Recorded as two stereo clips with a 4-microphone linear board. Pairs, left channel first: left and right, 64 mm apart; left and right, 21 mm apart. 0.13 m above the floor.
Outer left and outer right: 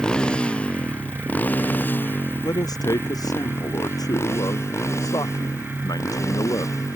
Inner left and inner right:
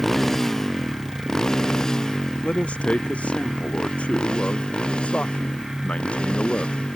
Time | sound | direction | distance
0.0 | a motorcycle | 10° left (ahead or behind) | ?
2.4 | a man speaking | 75° left (ahead or behind) | ?